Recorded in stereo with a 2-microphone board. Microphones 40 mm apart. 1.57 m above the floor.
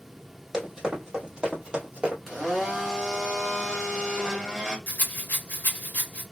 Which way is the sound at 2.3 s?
5° right (ahead or behind).